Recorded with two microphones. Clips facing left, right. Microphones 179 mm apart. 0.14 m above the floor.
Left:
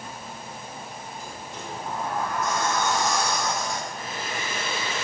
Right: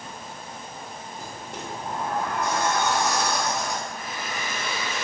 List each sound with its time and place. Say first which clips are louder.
1.2 s a sliding door: right 1 dB; 70° right (ahead or behind), 2.0 m
3.9 s a hair dryer: even; 30° left (ahead or behind), 2 m